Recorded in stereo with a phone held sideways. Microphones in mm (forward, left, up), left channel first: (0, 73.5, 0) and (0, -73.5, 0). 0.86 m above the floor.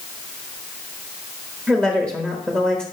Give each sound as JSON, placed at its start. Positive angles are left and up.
{"t": 1.7, "sound": "a woman speaking", "side_deg": -15, "distance_m": 1.2}